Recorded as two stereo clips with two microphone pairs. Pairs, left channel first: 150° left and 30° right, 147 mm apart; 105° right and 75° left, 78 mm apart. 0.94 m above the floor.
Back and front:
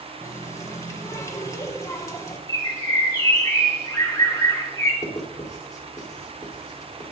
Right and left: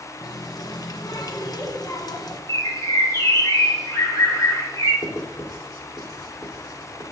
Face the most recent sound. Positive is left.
turn(degrees=-145)